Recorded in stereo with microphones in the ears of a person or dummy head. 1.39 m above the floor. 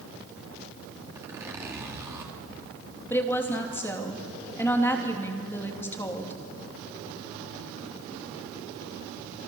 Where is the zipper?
10° right (ahead or behind), 3 m.